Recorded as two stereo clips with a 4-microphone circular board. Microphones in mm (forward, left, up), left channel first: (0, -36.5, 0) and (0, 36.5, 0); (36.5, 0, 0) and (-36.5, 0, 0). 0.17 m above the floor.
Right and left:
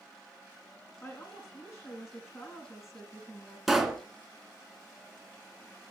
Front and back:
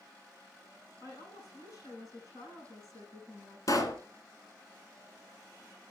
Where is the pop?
5° left, 1.5 m.